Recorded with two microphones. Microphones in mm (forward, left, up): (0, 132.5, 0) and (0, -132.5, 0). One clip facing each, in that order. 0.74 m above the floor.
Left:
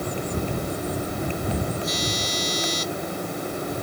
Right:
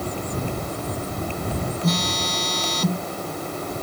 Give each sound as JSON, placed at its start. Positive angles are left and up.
{"t": 1.8, "sound": "a phone buzzing", "side_deg": -70}